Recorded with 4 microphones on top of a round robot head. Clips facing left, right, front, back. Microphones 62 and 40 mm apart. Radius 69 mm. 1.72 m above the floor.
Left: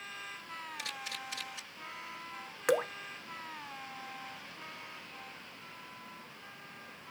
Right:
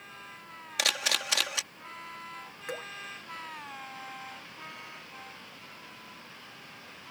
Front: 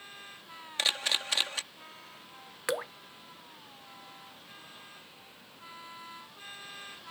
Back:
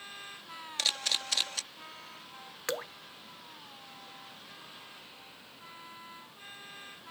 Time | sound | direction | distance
0.8 | a camera shutter | 70° right | ?
2.7 | dripping | 75° left | ?